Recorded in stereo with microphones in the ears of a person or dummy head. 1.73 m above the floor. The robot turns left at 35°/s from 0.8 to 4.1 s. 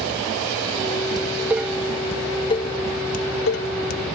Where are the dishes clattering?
20° right (ahead or behind); by 4.0 s 65° left (ahead or behind).